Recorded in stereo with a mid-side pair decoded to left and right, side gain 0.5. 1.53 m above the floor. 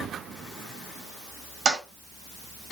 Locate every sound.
1.6 s a toilet flushing: 50° right, 1.2 m